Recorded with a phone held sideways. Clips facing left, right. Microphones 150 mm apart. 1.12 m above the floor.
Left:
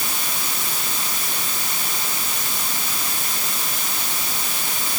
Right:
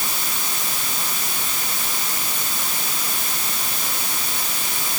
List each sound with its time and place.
Only background noise.